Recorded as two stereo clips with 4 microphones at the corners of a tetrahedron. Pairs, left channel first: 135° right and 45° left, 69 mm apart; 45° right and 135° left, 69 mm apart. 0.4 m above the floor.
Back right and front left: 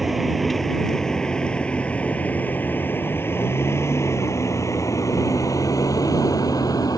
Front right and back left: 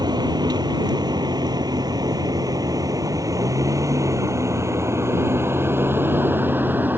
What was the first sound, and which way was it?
A vehicle, 130° left.